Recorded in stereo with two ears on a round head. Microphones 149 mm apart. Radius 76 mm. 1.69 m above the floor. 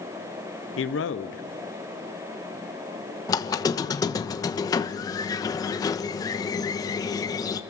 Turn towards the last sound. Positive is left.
turn(degrees=25)  # may be behind; listen again after turning